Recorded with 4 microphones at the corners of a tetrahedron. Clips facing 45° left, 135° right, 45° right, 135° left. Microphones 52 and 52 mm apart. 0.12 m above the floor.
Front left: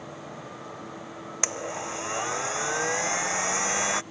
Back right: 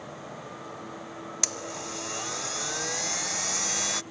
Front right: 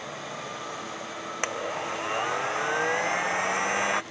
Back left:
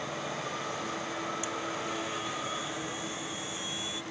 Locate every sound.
1.4 s a blender: 20° right